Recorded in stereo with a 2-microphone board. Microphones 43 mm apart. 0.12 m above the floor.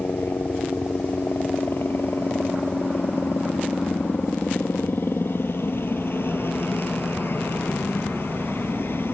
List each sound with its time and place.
0.0 s a helicopter: 60° left (ahead or behind)